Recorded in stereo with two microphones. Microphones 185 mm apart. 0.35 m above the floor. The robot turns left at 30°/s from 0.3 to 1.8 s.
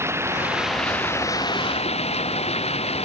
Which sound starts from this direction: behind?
Running water, at 0.0 s.